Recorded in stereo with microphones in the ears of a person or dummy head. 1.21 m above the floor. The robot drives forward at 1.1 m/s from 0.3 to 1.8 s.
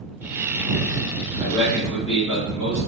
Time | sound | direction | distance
1.4 | a man speaking | 5° right (ahead or behind) | 1.9 m